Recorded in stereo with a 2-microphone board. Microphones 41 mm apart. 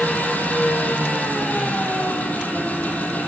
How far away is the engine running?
About 9.5 m.